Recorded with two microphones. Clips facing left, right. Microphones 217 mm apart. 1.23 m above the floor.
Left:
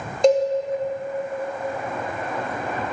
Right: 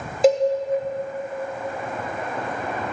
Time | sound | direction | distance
0.2 | a cowbell | 5° right (ahead or behind) | 1.0 m